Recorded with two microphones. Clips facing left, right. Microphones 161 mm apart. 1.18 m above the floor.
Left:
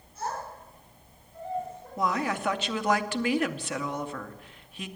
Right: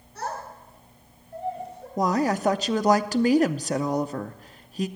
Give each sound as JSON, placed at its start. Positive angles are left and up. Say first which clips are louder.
{"t": 0.1, "sound": "a child speaking", "louder": "right 1 dB", "side_deg": -75, "distance_m": 6.5}
{"t": 2.0, "sound": "a woman speaking", "louder": "right 6 dB", "side_deg": -40, "distance_m": 0.6}